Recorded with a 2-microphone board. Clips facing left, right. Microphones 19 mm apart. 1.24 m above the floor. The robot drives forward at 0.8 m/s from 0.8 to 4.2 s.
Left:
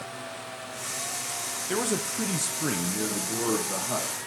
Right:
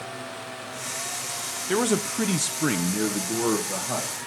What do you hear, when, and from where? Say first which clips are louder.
1.7 s a man speaking: right 5 dB; 15° right (ahead or behind), 0.7 m; by 4.1 s 5° right (ahead or behind), 1.5 m